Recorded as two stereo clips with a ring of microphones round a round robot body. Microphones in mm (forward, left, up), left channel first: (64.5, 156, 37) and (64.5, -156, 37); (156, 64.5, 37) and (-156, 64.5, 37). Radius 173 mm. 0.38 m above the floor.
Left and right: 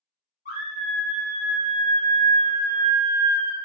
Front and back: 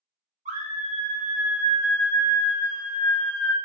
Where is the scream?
130° left, 1.1 m; by 3.5 s 70° right, 1.7 m.